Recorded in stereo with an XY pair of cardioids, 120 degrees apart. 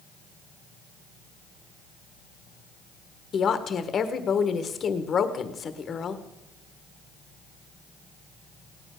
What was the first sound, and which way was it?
A woman speaking, 40° left.